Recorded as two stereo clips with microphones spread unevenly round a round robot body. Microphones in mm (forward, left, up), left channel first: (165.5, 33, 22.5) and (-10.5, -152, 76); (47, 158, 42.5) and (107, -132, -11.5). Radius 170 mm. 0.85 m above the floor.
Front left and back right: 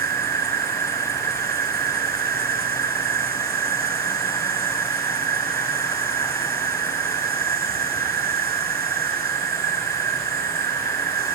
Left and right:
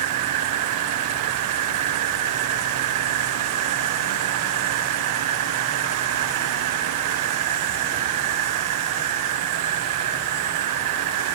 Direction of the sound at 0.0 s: 75° right.